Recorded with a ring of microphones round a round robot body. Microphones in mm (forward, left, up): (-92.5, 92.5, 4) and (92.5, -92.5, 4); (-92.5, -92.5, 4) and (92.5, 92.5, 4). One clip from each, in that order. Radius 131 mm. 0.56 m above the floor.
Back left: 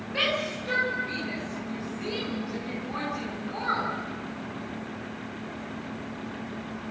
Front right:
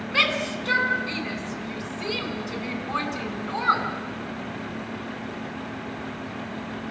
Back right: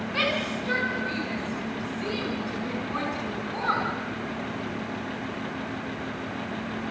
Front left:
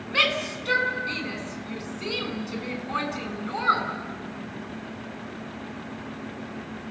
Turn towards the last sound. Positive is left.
turn(degrees=-15)